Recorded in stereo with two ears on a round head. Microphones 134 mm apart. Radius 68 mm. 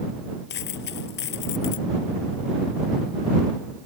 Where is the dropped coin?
85° left.